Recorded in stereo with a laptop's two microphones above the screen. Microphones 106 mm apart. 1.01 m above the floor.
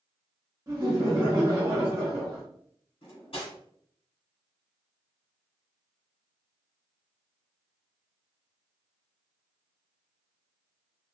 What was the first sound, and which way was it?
Laughter, 40° right (ahead or behind).